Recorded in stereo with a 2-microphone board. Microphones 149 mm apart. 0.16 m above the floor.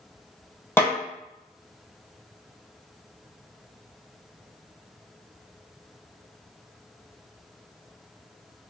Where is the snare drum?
15° left (ahead or behind), 0.8 m.